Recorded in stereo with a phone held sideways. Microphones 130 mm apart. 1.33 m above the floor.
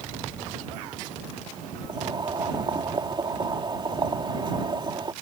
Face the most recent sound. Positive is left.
turn(degrees=-35)  # may be behind; listen again after turning